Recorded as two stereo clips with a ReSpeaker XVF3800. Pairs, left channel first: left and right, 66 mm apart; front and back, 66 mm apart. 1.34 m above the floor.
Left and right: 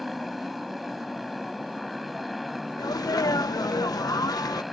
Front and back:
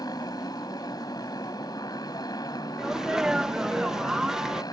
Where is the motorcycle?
Straight ahead.